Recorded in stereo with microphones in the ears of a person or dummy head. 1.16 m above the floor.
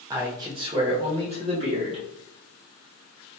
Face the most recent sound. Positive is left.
turn(degrees=-35)  # may be behind; listen again after turning